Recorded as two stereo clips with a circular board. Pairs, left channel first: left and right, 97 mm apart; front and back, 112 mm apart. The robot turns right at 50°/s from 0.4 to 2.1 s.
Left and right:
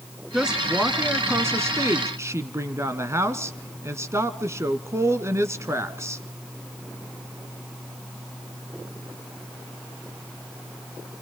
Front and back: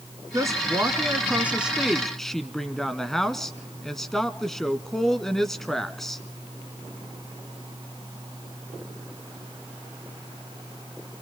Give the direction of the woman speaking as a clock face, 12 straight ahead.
6 o'clock.